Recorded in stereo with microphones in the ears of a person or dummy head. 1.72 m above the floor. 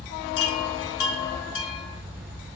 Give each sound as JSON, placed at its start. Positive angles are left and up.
{"t": 0.4, "sound": "a chime", "side_deg": 80, "distance_m": 2.5}